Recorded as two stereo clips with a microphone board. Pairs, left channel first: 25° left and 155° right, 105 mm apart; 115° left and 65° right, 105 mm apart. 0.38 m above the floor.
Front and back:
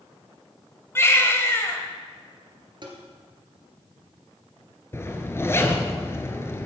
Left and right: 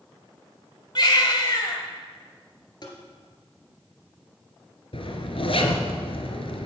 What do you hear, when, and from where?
0.9 s a baby crying: 85° left, 1.3 m
2.8 s tapping: 160° left, 1.9 m
4.9 s a zipper: 90° left, 1.0 m